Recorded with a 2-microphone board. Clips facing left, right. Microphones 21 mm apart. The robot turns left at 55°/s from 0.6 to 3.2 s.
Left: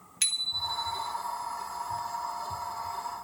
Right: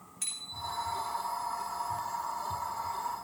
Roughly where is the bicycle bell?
Left.